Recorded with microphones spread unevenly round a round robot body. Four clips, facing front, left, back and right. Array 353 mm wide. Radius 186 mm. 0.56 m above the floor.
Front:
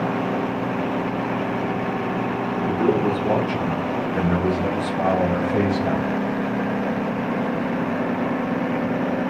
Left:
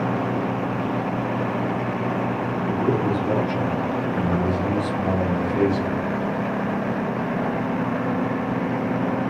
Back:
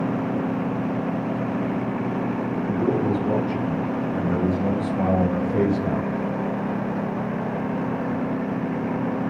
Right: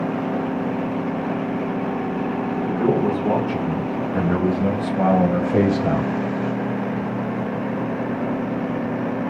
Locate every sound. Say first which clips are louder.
2.7 s a man speaking: right 3 dB, front 3 dB; 60° right, 5.5 m; by 6.1 s 80° right, 3 m